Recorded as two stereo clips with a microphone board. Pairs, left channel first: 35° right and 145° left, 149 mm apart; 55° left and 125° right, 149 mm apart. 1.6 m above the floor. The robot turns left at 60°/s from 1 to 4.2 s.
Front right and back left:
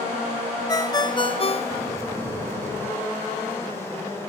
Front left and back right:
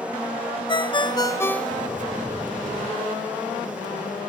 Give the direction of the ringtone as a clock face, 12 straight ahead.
11 o'clock.